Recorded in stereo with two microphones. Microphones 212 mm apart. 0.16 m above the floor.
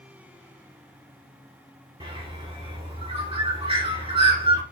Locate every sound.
2.0 s a bird: 25° right (ahead or behind), 1.2 m